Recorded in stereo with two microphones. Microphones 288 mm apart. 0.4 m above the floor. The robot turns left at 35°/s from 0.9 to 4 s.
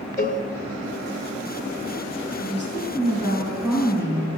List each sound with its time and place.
0.2 s a cowbell: 30° right (ahead or behind), 1.3 m
2.4 s a woman speaking: 130° right, 4 m; by 4.3 s 170° left, 4 m